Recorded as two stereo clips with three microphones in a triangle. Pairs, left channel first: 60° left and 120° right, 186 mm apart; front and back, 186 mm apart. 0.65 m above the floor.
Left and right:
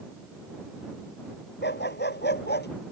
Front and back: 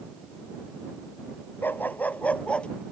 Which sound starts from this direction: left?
A dog barking, at 1.6 s.